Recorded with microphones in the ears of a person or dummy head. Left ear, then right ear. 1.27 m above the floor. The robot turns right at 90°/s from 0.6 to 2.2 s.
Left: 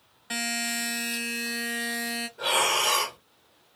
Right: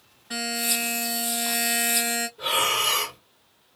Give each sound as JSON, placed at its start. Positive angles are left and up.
{"t": 0.3, "sound": "a buzzer", "azimuth_deg": 105, "distance_m": 1.4}
{"t": 2.4, "sound": "breathing", "side_deg": 30, "distance_m": 1.4}